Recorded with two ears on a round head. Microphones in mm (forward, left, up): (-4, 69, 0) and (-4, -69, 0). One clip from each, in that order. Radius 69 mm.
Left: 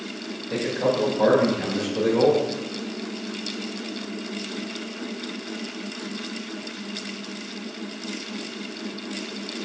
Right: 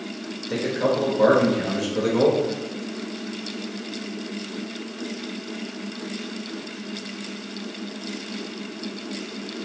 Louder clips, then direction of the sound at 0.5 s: Right 1 dB; 25° right (ahead or behind).